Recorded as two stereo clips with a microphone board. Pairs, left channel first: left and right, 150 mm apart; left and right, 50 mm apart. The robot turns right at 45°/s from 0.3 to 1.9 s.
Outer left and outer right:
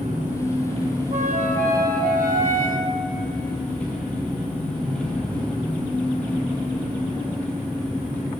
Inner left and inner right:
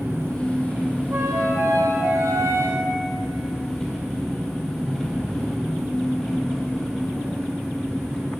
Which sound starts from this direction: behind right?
A flute, at 1.1 s.